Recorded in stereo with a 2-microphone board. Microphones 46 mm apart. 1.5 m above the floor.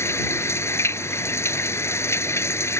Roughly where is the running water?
Left.